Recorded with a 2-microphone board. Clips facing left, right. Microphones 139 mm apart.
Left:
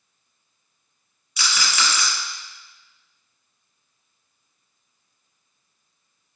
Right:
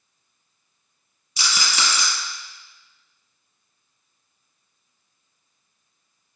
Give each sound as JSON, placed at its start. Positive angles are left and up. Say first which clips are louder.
{"t": 1.4, "sound": "a rattle", "louder": "left 1 dB", "side_deg": -30, "distance_m": 1.7}